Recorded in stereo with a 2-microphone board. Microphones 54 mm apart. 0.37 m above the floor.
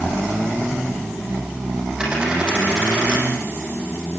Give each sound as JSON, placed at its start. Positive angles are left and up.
{"t": 2.0, "sound": "a dropped coin", "side_deg": -15, "distance_m": 6.0}